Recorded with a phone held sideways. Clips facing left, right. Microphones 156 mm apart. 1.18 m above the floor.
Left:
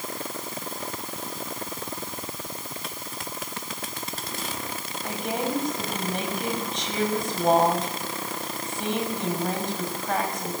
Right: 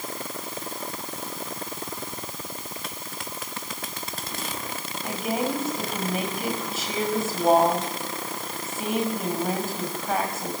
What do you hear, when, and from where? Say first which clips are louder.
5.0 s a woman speaking: right 2 dB; 5° right (ahead or behind), 6 m